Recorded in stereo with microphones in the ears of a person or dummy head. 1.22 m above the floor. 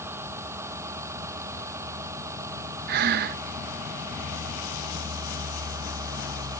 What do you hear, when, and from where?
0.0 s a vehicle: 15° right (ahead or behind); by 6.6 s 20° right (ahead or behind)
2.9 s breathing: 55° right (ahead or behind)